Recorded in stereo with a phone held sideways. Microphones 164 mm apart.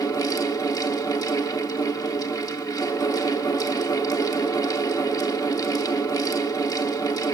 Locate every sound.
0.0 s a fan: 25° left (ahead or behind), 0.9 m